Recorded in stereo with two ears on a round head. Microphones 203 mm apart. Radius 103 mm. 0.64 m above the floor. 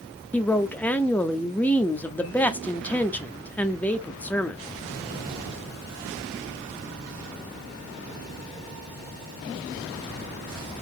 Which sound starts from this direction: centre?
A woman speaking, at 0.3 s.